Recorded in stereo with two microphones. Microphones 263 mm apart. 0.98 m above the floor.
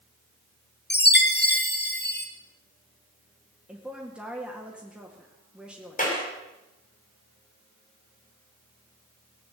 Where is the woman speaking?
5° right (ahead or behind), 1.8 m.